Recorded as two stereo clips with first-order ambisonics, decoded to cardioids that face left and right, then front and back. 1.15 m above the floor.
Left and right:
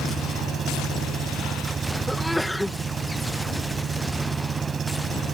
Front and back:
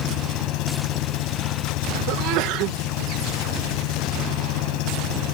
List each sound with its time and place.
0.0 s an engine running: 25° right
2.1 s a sneeze: straight behind